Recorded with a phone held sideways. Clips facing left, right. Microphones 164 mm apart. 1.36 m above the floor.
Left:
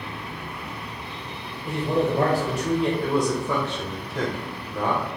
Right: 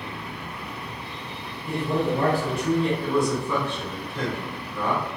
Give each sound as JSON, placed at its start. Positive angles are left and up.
{"t": 1.6, "sound": "a man speaking", "side_deg": 75, "distance_m": 1.4}
{"t": 3.0, "sound": "a man speaking", "side_deg": 75, "distance_m": 1.2}